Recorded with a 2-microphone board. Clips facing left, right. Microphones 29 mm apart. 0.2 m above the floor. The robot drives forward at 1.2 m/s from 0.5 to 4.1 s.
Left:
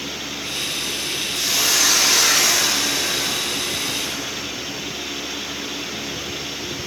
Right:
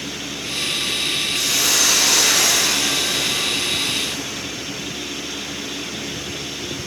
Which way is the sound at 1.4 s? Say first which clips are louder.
Left 1 dB; 5° left (ahead or behind).